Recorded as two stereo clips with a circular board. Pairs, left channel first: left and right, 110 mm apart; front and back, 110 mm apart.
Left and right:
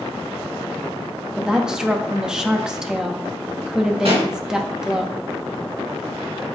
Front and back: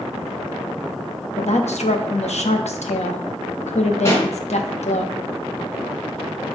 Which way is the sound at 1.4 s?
5° right.